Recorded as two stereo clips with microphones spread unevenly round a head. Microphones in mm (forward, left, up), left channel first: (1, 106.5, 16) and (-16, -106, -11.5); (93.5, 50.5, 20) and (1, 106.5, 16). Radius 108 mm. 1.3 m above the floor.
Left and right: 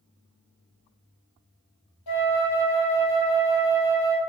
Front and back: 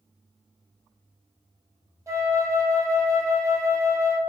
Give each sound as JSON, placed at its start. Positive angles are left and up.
{"t": 2.1, "sound": "a flute", "azimuth_deg": 85, "distance_m": 0.7}